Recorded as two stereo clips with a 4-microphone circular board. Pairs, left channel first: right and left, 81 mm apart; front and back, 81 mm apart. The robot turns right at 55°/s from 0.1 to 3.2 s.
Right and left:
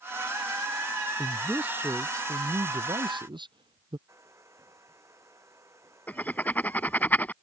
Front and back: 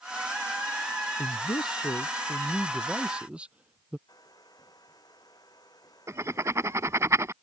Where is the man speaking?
5° right; by 4.0 s 105° left.